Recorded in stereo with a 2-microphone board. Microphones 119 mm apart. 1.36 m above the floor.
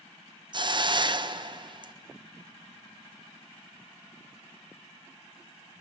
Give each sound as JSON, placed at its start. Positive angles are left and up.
{"t": 0.5, "sound": "a hiss", "side_deg": -40, "distance_m": 0.6}